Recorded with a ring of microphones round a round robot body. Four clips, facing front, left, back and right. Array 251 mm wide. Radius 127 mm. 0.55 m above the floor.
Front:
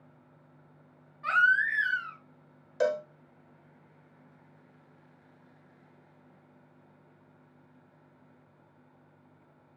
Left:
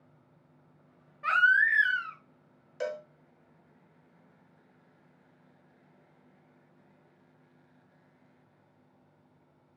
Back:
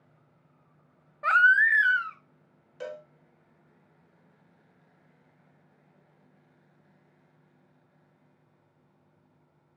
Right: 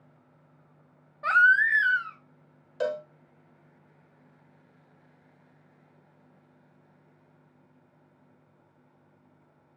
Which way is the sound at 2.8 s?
25° right.